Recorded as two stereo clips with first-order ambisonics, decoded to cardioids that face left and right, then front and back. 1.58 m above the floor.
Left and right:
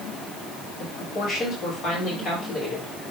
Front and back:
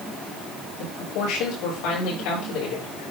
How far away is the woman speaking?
About 5.5 m.